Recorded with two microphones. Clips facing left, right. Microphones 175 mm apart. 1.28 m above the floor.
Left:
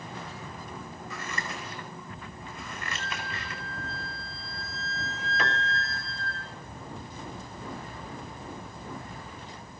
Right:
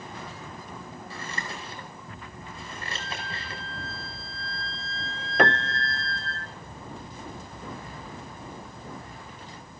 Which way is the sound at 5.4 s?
60° right (ahead or behind).